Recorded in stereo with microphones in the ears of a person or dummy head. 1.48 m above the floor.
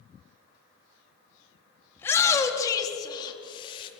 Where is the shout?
10° left (ahead or behind), 3.5 m; by 3.9 s 30° left (ahead or behind), 4 m.